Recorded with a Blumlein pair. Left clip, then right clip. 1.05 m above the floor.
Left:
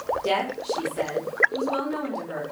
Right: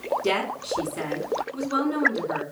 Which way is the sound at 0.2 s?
10° right.